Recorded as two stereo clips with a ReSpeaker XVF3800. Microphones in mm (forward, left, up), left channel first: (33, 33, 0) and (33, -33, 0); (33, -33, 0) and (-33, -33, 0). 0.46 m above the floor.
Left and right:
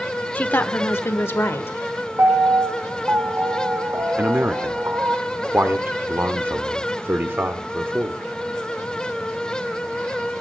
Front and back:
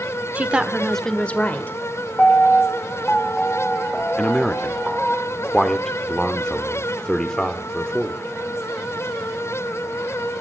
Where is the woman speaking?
135° left, 0.9 m; by 1.8 s 45° left, 1.3 m.